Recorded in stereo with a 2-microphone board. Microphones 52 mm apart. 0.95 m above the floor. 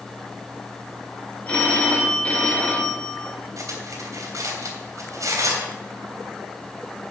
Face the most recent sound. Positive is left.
turn(degrees=-85)